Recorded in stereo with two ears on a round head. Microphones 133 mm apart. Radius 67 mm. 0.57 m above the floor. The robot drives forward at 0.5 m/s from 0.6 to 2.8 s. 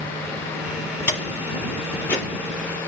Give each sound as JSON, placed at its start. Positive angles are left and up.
{"t": 1.1, "sound": "a door slam", "side_deg": 15, "distance_m": 8.0}